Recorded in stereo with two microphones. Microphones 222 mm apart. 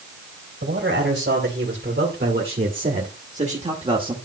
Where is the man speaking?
55° right (ahead or behind), 3 m; by 4.2 s 20° right (ahead or behind), 1.5 m.